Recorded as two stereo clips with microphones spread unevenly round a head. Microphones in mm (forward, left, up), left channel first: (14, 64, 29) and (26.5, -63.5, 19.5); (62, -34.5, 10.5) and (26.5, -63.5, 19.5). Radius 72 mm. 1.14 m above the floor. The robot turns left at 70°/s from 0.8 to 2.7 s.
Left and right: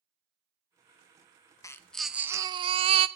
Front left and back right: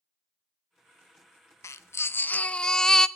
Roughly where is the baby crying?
Ahead left.